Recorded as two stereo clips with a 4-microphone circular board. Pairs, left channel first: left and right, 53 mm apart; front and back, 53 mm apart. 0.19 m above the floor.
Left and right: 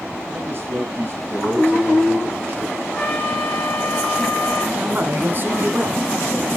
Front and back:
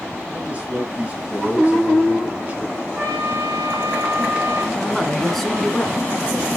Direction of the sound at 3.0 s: 165° left.